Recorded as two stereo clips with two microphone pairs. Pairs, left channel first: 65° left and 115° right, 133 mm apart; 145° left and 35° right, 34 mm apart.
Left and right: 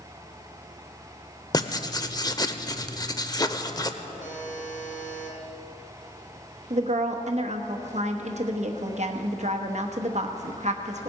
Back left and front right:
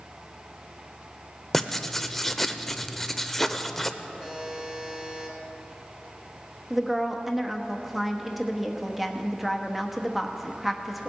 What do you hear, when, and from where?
1.5 s writing: 75° left, 0.6 m
4.2 s a buzzer: 45° left, 3.5 m
6.7 s a woman speaking: 125° right, 1.1 m